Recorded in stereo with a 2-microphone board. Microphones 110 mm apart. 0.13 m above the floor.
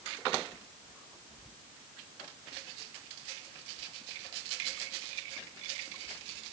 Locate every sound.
Only background noise.